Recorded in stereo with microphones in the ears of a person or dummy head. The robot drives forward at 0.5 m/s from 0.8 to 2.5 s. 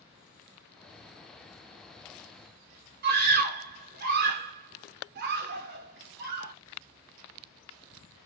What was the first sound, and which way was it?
A scream, 50° right (ahead or behind).